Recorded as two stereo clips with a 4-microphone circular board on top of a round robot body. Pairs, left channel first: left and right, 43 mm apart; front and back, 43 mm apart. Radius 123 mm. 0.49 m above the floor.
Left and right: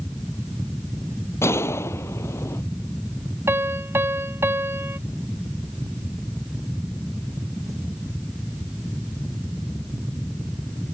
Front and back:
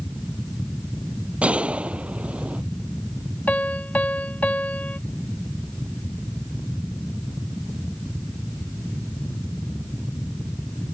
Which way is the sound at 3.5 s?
55° right.